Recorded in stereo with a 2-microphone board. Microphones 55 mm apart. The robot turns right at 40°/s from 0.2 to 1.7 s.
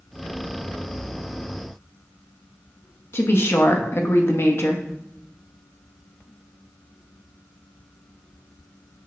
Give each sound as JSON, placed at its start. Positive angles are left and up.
{"t": 3.1, "sound": "a woman speaking", "side_deg": 50, "distance_m": 0.9}